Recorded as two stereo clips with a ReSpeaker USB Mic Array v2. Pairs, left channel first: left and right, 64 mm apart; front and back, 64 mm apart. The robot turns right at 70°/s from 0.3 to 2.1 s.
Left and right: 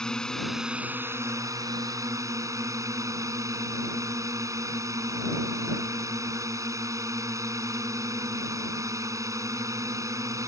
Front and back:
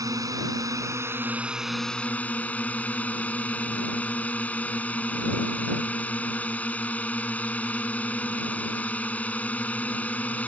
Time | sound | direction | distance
0.0 | a drone | 170° left | ?